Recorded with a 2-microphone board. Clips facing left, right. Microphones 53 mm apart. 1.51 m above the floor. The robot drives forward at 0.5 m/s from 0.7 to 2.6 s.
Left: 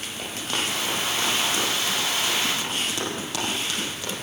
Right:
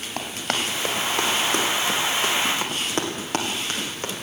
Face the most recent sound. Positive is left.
turn(degrees=-40)  # may be behind; listen again after turning